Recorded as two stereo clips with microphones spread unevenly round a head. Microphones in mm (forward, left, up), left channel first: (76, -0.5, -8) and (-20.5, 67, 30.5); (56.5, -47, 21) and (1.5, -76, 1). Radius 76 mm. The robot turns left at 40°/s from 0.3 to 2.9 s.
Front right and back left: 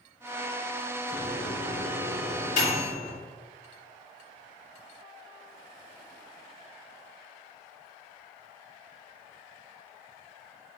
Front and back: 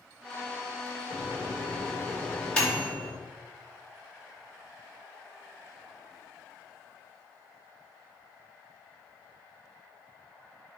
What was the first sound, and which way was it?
A microwave, 10° left.